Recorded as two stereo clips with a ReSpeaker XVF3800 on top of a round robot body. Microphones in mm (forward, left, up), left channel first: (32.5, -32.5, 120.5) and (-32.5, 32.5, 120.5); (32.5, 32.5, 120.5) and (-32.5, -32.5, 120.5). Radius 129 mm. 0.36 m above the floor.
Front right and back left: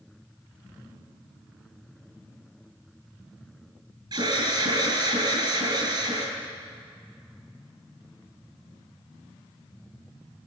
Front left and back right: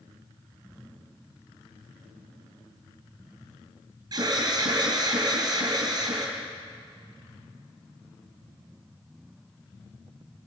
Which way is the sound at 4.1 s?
175° left.